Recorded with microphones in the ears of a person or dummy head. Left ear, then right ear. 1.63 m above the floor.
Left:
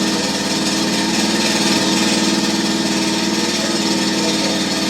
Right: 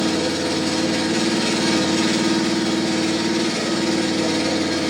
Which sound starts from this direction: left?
An engine running, at 0.0 s.